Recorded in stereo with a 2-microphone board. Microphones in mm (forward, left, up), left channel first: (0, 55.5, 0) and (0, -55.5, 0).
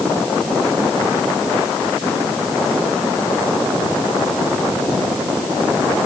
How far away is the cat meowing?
No cat meowing in this recording.